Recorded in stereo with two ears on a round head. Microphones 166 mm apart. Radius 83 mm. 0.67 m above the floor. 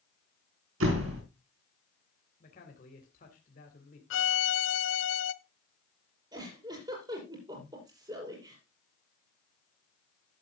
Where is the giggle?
25° right (ahead or behind), 6 m.